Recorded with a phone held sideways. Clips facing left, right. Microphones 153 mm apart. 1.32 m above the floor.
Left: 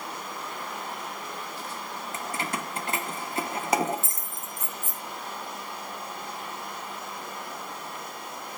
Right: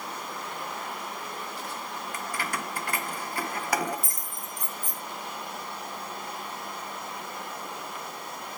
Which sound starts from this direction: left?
Keys jangling, at 2.1 s.